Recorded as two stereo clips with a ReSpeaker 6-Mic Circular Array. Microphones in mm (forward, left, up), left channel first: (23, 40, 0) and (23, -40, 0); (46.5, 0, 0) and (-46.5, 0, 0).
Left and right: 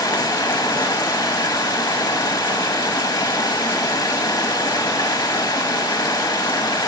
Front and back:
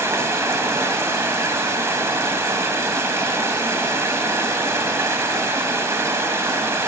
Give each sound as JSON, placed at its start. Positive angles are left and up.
{"t": 0.0, "sound": "running water", "azimuth_deg": 120, "distance_m": 0.8}